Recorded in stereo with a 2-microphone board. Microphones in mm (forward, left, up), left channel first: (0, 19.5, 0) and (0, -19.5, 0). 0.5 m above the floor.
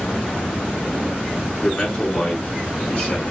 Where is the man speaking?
30° left (ahead or behind), 5.5 m.